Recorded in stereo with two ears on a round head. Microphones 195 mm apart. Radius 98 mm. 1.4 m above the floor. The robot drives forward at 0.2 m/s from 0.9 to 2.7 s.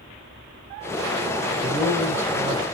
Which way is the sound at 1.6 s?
20° right (ahead or behind).